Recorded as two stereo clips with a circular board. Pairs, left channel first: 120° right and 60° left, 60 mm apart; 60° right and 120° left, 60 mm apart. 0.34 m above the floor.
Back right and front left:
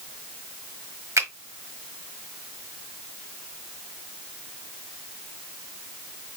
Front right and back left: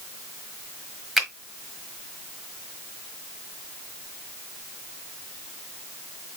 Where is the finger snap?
35° left, 1.3 m.